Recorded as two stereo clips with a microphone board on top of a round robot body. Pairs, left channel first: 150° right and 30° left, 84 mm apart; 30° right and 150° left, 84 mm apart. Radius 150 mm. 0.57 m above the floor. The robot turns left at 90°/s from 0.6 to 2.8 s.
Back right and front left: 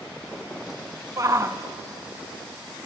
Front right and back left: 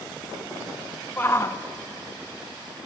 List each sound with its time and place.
1.2 s a shout: 20° left, 1.0 m; by 1.6 s 20° right, 1.0 m